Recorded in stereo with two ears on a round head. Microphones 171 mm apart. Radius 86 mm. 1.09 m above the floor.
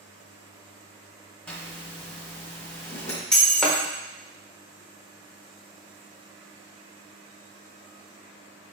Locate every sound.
1.5 s a zipper: 5° left (ahead or behind), 1.5 m
3.3 s breaking glass: 5° left (ahead or behind), 0.9 m